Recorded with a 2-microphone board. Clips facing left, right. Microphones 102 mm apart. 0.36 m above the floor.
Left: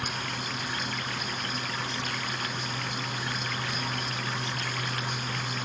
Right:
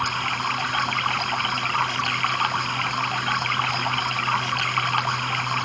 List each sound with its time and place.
0.0 s running water: 60° right (ahead or behind)